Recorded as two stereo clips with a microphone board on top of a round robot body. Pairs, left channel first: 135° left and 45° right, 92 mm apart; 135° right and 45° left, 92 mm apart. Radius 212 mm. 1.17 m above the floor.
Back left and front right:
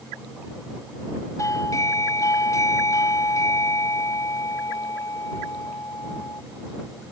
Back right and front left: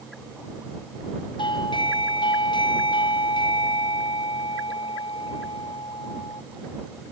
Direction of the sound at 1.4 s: 170° right.